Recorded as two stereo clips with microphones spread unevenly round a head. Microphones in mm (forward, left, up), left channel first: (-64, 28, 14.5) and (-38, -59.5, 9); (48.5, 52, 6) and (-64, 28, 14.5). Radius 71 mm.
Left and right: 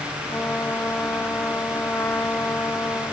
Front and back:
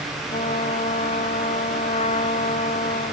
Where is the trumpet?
30° left.